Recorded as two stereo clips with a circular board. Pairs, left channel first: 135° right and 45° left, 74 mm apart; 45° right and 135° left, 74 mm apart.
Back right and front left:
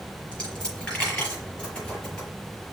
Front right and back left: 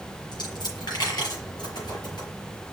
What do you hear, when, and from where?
0.3 s a dropped coin: 60° right, 5.5 m